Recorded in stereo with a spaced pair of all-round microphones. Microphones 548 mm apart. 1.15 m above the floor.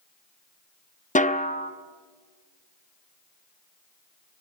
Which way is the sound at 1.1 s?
15° left (ahead or behind).